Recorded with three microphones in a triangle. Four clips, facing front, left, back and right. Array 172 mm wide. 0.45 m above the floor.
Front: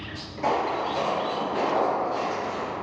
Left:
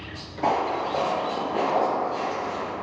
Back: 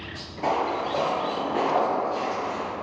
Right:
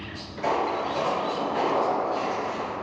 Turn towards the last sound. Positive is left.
turn(degrees=-160)